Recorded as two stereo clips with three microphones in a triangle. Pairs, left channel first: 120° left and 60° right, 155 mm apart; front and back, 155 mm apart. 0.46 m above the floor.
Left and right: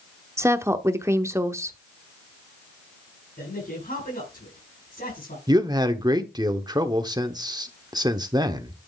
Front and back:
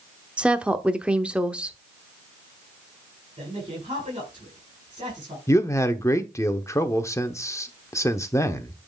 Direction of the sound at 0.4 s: 105° right.